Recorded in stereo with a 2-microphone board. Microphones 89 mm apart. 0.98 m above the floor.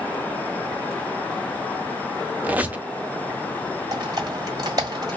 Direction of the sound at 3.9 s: 45° right (ahead or behind).